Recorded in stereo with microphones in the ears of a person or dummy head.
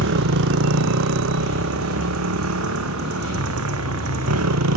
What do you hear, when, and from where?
0.0 s a motorcycle: 70° right (ahead or behind); by 4.8 s 90° right